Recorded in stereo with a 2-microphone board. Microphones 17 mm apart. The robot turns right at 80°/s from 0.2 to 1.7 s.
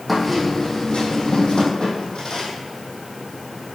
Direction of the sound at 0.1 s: 5° left.